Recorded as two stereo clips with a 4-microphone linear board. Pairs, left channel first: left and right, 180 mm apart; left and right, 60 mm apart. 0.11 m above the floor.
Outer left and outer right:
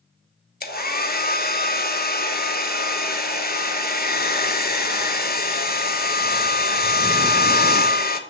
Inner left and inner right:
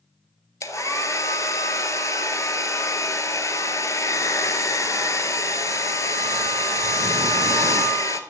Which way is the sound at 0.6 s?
55° left (ahead or behind).